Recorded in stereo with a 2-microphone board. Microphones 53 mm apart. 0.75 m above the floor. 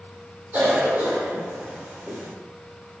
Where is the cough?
35° right (ahead or behind), 1.9 m.